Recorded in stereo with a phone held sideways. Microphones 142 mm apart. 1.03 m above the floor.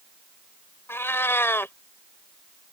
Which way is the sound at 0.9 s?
15° left (ahead or behind).